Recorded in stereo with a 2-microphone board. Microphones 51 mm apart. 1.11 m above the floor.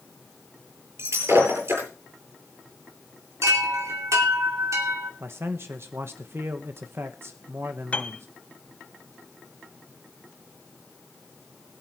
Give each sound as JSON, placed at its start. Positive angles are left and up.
{"t": 1.0, "sound": "breaking glass", "side_deg": -60, "distance_m": 9.0}
{"t": 3.4, "sound": "a chime", "side_deg": -75, "distance_m": 2.5}
{"t": 5.2, "sound": "a man speaking", "side_deg": -50, "distance_m": 1.1}
{"t": 7.9, "sound": "a piano", "side_deg": 25, "distance_m": 1.1}